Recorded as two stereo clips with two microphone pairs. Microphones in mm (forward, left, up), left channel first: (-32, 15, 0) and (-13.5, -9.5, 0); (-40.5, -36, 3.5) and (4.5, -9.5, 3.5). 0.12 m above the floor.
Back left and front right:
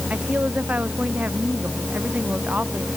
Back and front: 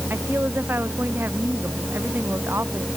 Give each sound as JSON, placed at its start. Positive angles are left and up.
{"t": 0.1, "sound": "a woman speaking", "azimuth_deg": -15}